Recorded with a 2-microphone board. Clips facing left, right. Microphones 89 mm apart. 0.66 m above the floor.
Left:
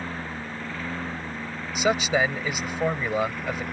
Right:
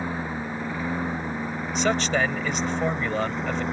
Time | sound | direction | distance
0.0 | a lawn mower | 15° right (ahead or behind) | ?
1.8 | a man speaking | 10° left (ahead or behind) | ?